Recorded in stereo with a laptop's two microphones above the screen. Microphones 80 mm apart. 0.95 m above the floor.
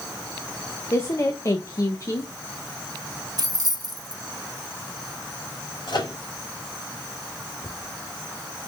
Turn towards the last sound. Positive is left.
turn(degrees=65)  # may be behind; listen again after turning